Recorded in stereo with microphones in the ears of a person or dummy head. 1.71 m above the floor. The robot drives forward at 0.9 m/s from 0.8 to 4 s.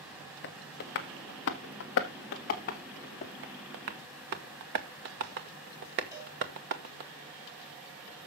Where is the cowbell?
15° right (ahead or behind), 3 m.